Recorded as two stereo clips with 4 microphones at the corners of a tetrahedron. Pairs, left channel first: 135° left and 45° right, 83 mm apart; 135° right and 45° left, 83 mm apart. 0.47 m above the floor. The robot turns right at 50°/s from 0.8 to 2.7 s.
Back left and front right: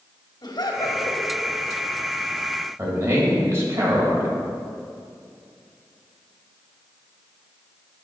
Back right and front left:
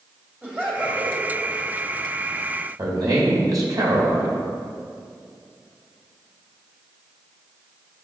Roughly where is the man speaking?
Ahead.